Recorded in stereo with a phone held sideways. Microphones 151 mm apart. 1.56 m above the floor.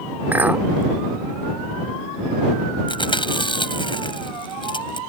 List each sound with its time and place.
0.3 s a clink: 10° right (ahead or behind)
2.9 s chewing: 35° left (ahead or behind)